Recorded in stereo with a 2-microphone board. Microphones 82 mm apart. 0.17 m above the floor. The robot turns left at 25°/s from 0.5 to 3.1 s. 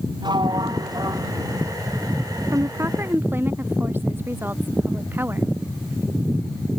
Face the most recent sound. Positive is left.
turn(degrees=-25)  # may be behind; listen again after turning